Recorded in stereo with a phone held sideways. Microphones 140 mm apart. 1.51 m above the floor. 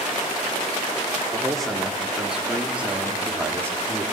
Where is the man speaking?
5° left (ahead or behind), 5 m; by 4.0 s 20° right (ahead or behind), 4.5 m.